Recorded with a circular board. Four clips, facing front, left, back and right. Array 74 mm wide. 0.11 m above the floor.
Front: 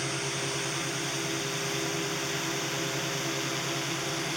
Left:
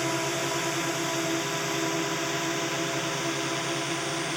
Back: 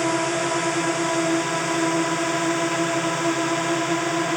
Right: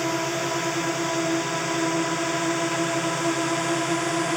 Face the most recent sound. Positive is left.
turn(degrees=-150)